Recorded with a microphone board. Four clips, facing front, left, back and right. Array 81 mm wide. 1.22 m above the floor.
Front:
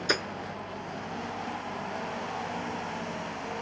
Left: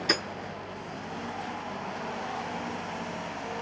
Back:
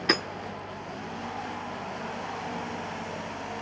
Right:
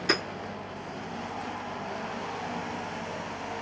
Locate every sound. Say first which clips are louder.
0.1 s hammering: right 2 dB, back 3 dB; 170° right, 3 m